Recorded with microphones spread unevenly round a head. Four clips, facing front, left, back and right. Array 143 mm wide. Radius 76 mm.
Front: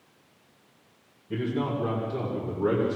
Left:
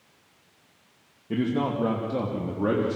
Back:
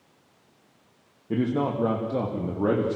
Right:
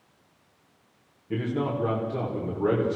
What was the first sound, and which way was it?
A man speaking, 160° left.